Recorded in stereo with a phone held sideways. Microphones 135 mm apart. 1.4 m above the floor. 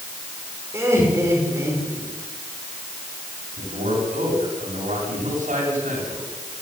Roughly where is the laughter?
Centre.